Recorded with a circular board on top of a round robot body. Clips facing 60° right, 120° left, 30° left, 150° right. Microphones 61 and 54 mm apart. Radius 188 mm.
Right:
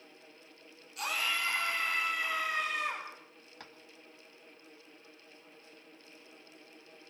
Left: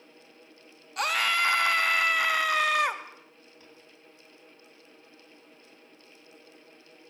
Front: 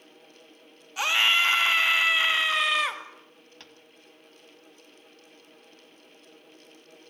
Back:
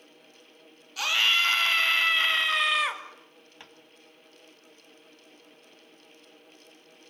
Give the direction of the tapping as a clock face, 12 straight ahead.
3 o'clock.